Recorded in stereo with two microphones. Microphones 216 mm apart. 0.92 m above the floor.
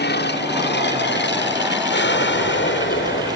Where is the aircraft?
55° left (ahead or behind); by 3.4 s 60° left (ahead or behind).